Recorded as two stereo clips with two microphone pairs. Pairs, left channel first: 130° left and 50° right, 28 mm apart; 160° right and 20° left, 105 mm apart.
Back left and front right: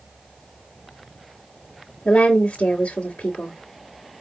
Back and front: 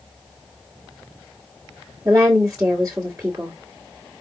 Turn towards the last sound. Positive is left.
turn(degrees=85)